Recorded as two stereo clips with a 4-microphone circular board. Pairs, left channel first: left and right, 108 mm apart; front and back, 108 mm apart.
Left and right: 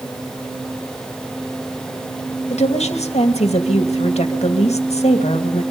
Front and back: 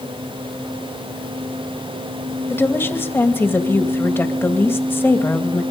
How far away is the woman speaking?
About 2.5 m.